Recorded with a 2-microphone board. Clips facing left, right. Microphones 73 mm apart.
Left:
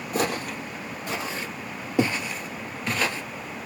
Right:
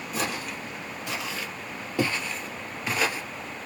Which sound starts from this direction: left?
Footsteps, at 0.1 s.